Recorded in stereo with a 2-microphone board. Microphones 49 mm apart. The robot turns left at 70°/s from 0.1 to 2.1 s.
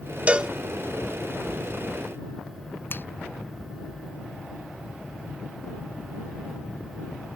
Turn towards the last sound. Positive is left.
turn(degrees=50)  # may be behind; listen again after turning